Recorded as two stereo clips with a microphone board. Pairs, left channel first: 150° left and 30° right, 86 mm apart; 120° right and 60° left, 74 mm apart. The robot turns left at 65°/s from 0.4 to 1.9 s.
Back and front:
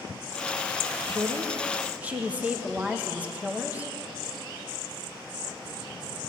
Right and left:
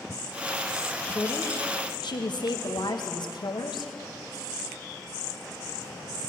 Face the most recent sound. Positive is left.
turn(degrees=-105)